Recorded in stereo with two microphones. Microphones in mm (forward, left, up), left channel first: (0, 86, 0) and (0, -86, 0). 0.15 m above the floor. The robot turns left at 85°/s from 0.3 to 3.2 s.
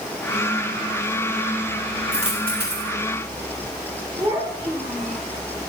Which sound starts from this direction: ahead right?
A dropped coin, at 2.1 s.